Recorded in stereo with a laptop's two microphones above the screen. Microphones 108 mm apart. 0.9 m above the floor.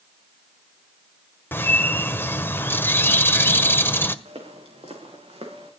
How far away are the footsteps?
About 6 m.